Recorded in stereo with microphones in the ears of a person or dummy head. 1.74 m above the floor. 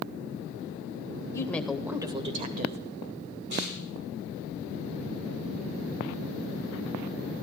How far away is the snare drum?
About 9.5 m.